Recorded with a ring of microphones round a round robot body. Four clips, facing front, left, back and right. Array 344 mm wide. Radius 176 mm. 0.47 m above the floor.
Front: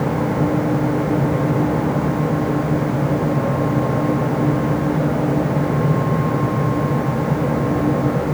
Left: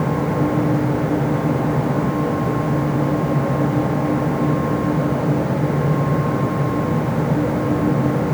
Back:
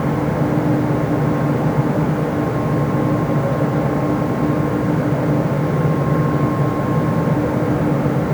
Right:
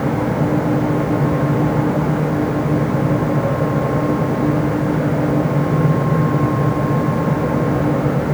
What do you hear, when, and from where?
Only background noise.